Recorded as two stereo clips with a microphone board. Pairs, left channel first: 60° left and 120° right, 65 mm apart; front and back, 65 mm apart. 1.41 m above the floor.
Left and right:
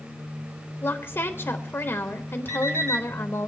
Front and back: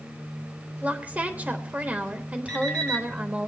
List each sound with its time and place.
0.8 s a woman speaking: 115° left, 1.0 m
2.5 s an alarm clock: 75° right, 1.6 m